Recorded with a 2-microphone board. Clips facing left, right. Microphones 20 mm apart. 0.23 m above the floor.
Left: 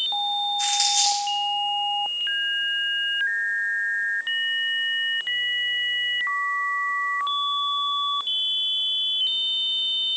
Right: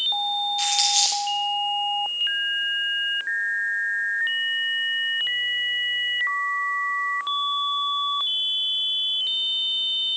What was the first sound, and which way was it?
Crumpling, 80° right.